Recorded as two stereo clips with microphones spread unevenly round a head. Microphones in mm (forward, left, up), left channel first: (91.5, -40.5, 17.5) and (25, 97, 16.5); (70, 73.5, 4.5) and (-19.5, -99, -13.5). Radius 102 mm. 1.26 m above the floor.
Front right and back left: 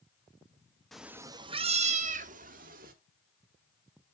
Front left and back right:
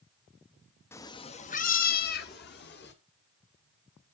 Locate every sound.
0.9 s a cat meowing: 20° left, 0.6 m; by 2.9 s 95° left, 1.6 m